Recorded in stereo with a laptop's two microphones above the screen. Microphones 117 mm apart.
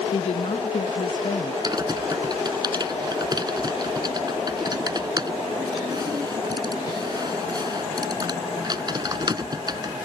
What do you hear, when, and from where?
0.1 s a woman speaking: 55° left (ahead or behind)
1.6 s typing on a keyboard: 35° right (ahead or behind)